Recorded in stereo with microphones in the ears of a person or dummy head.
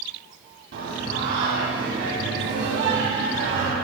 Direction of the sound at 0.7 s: 65° right (ahead or behind).